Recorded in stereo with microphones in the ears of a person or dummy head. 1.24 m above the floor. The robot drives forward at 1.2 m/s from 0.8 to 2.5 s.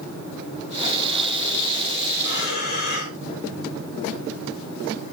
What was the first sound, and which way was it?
Breathing, 60° left (ahead or behind).